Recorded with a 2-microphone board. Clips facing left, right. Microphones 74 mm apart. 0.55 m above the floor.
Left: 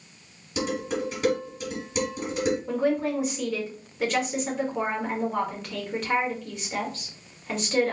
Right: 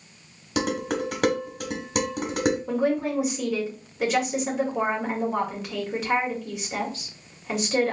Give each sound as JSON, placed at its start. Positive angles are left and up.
{"t": 0.6, "sound": "dishes clattering", "side_deg": -65, "distance_m": 1.3}
{"t": 2.7, "sound": "a woman speaking", "side_deg": -5, "distance_m": 1.9}